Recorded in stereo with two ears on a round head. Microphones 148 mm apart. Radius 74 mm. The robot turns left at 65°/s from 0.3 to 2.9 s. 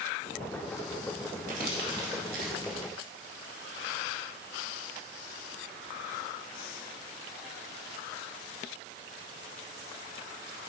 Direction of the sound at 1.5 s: 50° right (ahead or behind).